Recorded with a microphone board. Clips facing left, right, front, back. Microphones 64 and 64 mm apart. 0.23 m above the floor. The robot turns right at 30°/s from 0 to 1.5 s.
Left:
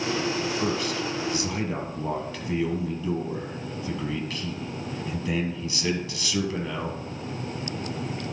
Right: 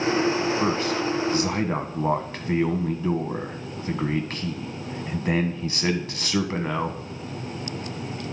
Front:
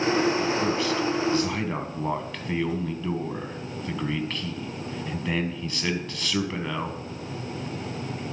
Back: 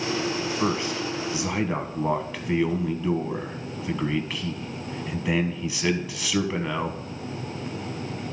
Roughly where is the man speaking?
Behind right.